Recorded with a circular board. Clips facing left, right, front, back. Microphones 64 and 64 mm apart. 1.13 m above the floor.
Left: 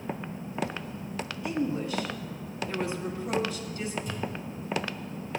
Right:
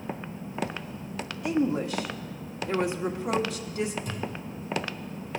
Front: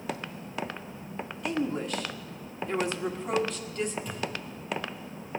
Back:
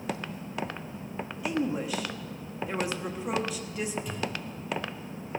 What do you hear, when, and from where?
1.4 s a woman speaking: 100° right, 1.6 m
4.0 s a thud: 95° right, 4.5 m